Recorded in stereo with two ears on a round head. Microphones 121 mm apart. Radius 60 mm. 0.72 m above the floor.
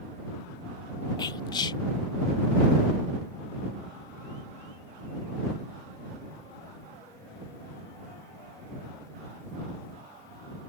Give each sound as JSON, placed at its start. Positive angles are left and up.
{"t": 1.2, "sound": "whispering", "side_deg": 30}